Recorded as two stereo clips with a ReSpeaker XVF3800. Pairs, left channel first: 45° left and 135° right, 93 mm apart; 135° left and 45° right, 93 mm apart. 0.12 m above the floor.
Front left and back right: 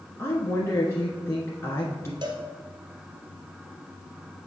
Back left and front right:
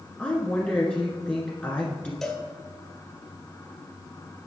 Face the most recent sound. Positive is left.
turn(degrees=-140)